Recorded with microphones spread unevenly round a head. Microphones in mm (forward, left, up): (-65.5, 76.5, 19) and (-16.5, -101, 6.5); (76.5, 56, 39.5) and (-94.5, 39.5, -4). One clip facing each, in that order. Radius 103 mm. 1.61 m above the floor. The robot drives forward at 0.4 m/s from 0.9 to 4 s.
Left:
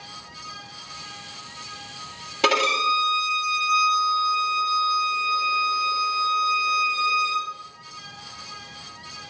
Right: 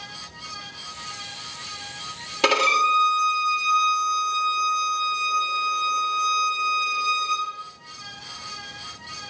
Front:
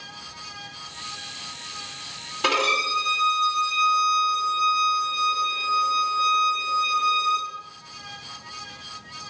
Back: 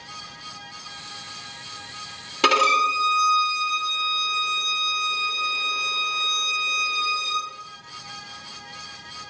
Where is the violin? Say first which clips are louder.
Even, back 3 dB; 170° right, 1.6 m; by 7.5 s 175° right, 2 m.